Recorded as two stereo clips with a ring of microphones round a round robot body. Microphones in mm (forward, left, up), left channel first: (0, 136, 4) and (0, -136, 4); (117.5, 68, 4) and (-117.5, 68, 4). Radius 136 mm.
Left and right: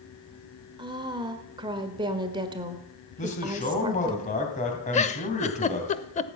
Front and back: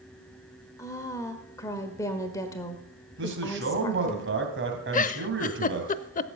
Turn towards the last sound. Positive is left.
turn(degrees=35)